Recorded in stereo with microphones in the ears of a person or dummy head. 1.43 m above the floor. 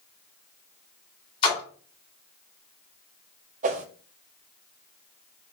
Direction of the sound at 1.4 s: 30° left (ahead or behind).